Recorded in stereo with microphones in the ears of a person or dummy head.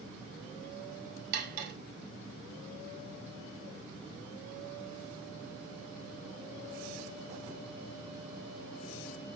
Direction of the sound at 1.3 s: 55° right (ahead or behind).